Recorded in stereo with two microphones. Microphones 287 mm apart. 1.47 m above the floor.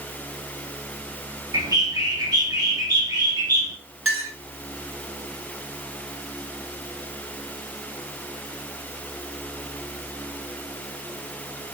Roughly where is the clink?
Right.